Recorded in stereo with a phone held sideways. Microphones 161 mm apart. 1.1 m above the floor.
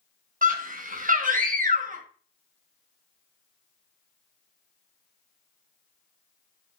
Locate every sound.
0.4 s a scream: 55° right (ahead or behind), 1.2 m